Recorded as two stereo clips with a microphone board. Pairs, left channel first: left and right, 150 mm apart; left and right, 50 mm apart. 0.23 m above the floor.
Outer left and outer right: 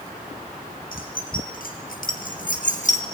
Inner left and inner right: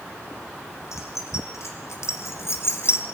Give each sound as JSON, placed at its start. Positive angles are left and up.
{"t": 0.9, "sound": "keys jangling", "side_deg": 75, "distance_m": 4.0}